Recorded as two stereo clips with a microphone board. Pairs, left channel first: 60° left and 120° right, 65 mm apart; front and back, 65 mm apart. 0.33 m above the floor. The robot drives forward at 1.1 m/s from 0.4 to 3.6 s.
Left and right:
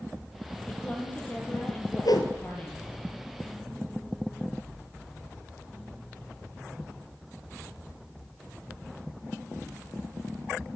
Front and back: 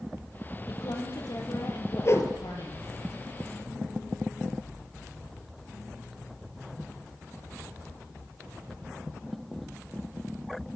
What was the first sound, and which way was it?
A woman speaking, 5° right.